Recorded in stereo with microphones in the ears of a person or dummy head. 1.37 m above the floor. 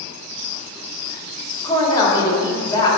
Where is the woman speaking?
25° left (ahead or behind), 2.5 m.